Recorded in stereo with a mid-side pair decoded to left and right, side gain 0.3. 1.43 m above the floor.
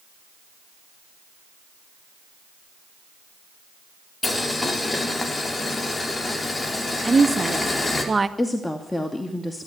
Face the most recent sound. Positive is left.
turn(degrees=25)